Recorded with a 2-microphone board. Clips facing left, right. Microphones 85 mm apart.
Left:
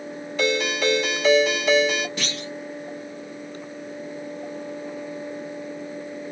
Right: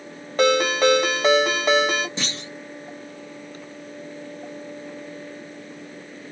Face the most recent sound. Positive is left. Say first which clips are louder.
# left 1 dB
turn(degrees=-25)  # may be behind; listen again after turning